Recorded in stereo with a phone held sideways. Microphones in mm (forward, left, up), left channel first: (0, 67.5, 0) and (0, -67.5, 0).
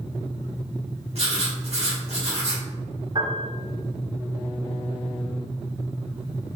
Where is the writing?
55° right (ahead or behind), 1.4 m.